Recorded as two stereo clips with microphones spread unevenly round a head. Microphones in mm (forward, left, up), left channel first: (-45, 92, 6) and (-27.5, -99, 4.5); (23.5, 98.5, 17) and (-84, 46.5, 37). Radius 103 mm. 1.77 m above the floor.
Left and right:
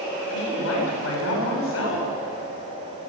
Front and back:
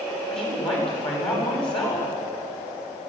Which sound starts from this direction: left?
A woman speaking, at 0.3 s.